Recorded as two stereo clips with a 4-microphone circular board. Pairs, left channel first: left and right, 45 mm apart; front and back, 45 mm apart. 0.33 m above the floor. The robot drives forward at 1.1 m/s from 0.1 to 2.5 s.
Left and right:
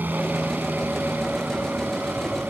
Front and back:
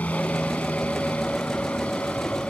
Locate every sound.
0.0 s a helicopter: 50° right; by 2.5 s 55° right